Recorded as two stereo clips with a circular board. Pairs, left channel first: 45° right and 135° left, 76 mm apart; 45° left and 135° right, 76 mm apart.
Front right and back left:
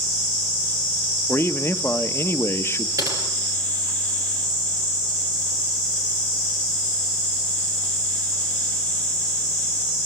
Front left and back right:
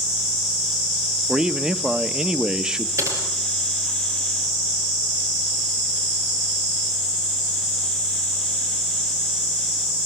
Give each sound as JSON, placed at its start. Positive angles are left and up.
{"t": 1.3, "sound": "a man speaking", "azimuth_deg": -65, "distance_m": 0.8}
{"t": 3.0, "sound": "typing on a keyboard", "azimuth_deg": 175, "distance_m": 6.5}